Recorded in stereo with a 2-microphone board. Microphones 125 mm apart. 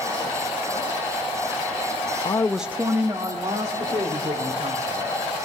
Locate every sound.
2.2 s a woman speaking: 40° left (ahead or behind), 0.6 m; by 5.3 s 50° right (ahead or behind), 4 m